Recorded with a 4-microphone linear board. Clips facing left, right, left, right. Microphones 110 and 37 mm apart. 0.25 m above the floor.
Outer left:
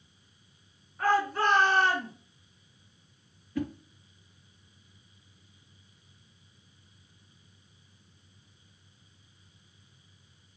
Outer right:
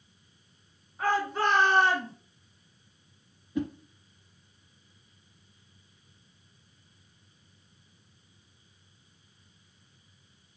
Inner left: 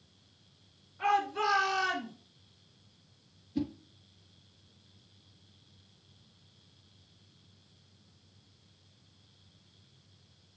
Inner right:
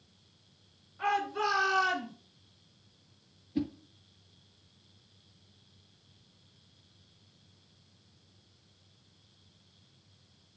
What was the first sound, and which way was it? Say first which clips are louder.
A shout: outer left 1 dB, inner left 1 dB; 15° right (ahead or behind).